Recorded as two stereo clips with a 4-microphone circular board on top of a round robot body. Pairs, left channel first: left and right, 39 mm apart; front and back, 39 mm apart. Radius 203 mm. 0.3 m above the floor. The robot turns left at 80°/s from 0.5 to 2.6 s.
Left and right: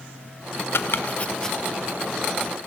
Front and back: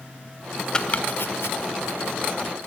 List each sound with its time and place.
0.7 s chopping: 70° left, 0.8 m; by 1.6 s 5° left, 0.8 m